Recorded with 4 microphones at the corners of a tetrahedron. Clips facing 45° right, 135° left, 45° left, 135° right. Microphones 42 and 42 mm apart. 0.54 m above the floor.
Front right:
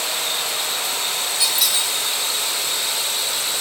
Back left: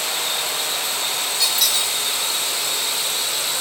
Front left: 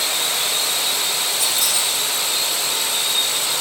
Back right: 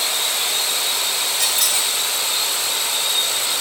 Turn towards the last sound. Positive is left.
turn(degrees=-130)